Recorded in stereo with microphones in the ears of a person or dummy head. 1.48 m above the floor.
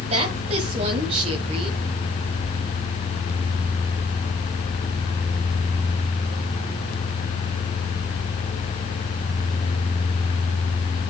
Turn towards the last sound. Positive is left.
turn(degrees=-35)  # may be behind; listen again after turning